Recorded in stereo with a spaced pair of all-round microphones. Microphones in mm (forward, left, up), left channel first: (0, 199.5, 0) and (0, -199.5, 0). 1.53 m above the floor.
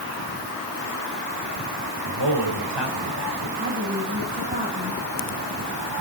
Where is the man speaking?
80° right, 6 m.